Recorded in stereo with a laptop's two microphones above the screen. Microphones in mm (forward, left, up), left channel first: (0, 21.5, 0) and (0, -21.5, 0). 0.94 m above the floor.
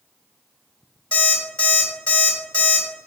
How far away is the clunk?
No clunk in this recording.